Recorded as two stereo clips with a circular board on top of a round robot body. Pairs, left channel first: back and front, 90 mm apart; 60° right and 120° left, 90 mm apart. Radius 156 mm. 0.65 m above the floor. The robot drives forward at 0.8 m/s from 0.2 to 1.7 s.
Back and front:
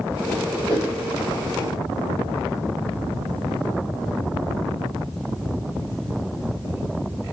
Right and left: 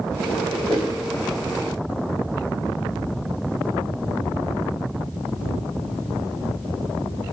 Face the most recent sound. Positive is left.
turn(degrees=170)